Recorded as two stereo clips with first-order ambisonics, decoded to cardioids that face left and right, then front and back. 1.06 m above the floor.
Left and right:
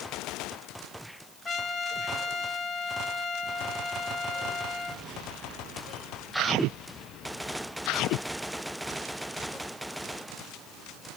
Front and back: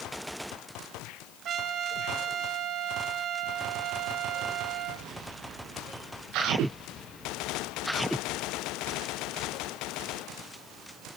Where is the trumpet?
155° left, 1.0 m.